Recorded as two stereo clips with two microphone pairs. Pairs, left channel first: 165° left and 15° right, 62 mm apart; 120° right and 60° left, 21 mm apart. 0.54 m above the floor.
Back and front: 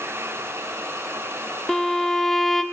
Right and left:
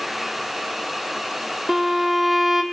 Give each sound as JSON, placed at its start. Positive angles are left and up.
{"t": 1.7, "sound": "a violin", "azimuth_deg": 100, "distance_m": 0.9}